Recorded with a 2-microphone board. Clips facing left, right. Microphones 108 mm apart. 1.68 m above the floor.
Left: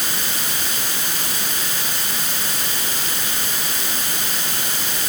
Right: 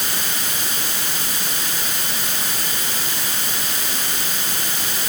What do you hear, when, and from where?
Only background noise.